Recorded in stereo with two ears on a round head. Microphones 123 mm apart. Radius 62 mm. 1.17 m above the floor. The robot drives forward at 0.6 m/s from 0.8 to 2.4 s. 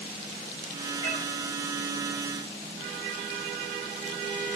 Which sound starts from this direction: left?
A cat meowing, at 1.0 s.